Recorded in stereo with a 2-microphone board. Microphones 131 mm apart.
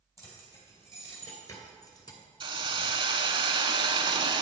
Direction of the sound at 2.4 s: 40° right (ahead or behind).